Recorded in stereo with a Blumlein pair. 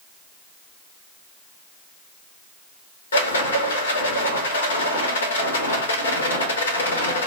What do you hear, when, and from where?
3.1 s a rattle: 65° left, 0.8 m